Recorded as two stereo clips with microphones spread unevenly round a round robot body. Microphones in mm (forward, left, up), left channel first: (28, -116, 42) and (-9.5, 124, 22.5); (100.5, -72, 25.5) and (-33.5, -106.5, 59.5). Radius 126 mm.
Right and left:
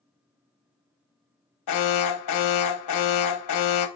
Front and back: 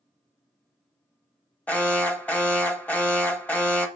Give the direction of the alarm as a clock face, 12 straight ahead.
2 o'clock.